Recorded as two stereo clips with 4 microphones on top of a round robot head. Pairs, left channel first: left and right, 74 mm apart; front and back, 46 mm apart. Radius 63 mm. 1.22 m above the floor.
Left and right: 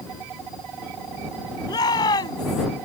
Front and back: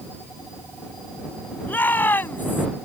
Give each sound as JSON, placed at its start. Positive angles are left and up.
{"t": 1.7, "sound": "a shout", "azimuth_deg": 45}